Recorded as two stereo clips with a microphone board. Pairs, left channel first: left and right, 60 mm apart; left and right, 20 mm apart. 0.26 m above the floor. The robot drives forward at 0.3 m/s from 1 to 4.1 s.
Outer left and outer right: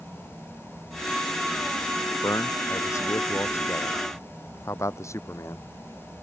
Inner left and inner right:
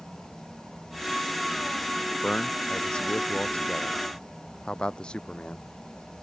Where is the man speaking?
55° left (ahead or behind).